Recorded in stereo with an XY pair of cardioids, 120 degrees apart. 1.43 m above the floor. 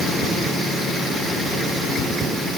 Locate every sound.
Only background noise.